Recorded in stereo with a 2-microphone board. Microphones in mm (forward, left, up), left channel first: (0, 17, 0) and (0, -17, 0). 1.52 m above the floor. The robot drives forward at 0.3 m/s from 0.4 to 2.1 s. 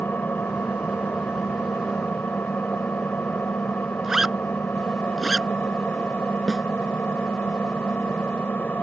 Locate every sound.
0.0 s an engine running: 75° left (ahead or behind); by 8.8 s 65° left (ahead or behind)
4.0 s a zipper: 10° right (ahead or behind)
6.5 s a snare drum: 5° left (ahead or behind)